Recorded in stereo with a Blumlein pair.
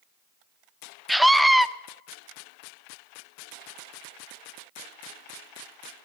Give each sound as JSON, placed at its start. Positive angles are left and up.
{"t": 1.1, "sound": "a scream", "azimuth_deg": 0, "distance_m": 0.5}